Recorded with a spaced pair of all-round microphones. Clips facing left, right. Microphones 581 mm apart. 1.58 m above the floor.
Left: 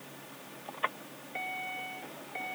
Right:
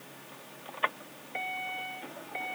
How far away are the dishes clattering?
I don't hear dishes clattering.